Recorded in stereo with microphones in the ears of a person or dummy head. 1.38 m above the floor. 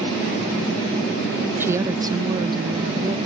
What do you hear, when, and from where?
1.6 s a woman speaking: 10° right (ahead or behind); by 3.2 s 25° right (ahead or behind)